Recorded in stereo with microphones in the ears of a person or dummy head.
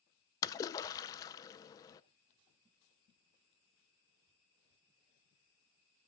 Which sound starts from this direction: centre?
A splash, at 0.4 s.